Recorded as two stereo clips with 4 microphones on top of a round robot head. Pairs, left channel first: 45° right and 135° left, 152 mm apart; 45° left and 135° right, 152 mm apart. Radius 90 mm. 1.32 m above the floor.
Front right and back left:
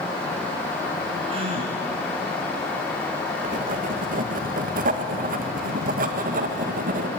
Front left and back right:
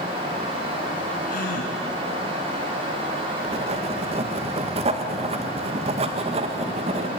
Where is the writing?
170° left, 1.9 m.